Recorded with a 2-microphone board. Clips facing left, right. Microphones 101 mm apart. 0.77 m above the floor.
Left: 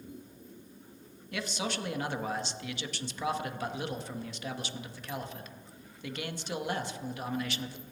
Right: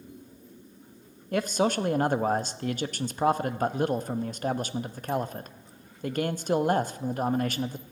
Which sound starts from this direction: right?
A man speaking, at 1.3 s.